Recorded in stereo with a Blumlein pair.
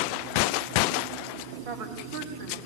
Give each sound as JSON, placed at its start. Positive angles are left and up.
{"t": 1.6, "sound": "a woman speaking", "azimuth_deg": -55, "distance_m": 4.5}